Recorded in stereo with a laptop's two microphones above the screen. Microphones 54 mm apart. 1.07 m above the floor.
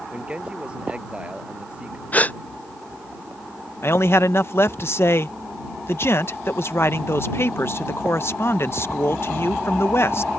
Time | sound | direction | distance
0.1 | a man speaking | 25° right (ahead or behind) | ?
2.1 | a gasp | 30° left (ahead or behind) | ?
3.8 | a man speaking | 50° left (ahead or behind) | ?